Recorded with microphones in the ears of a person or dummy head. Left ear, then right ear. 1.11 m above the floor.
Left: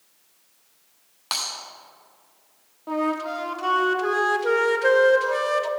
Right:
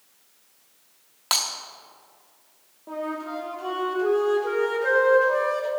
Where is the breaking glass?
10° right (ahead or behind), 0.6 m.